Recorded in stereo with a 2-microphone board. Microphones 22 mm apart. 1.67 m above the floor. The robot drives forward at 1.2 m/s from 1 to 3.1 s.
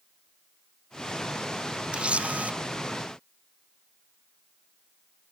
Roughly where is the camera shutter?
Right.